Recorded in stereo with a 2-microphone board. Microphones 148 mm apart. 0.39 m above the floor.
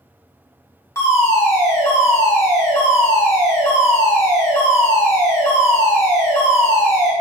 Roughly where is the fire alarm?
Left.